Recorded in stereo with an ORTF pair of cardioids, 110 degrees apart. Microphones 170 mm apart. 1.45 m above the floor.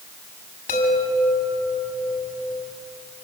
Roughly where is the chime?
Ahead left.